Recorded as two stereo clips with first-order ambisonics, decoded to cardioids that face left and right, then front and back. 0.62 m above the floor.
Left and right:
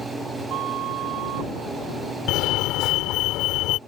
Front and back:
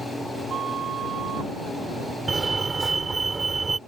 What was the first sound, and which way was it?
A flute, 125° right.